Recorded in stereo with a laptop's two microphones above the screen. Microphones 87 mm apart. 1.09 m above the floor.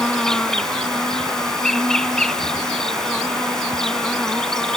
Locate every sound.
0.0 s an insect: 5° left (ahead or behind)